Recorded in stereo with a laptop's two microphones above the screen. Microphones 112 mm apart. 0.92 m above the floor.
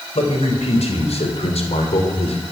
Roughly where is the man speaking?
Left.